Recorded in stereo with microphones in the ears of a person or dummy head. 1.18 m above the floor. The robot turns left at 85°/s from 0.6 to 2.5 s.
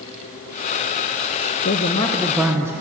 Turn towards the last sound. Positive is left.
turn(degrees=-10)